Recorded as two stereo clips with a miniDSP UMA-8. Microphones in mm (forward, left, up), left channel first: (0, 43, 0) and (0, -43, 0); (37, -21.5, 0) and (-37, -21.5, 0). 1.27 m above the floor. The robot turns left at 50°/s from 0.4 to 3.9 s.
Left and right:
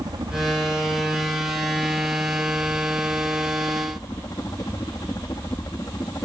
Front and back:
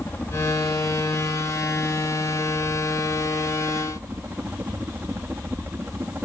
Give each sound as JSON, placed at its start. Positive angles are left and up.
{"t": 0.0, "sound": "a helicopter", "azimuth_deg": -60}